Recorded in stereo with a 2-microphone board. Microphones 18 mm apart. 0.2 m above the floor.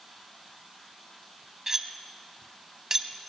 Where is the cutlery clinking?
25° right (ahead or behind), 0.7 m.